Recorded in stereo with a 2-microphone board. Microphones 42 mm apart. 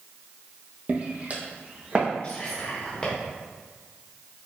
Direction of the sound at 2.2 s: 30° left (ahead or behind).